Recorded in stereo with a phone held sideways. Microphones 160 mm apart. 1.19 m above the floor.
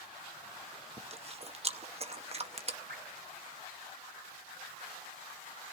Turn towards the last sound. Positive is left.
turn(degrees=-75)  # may be behind; listen again after turning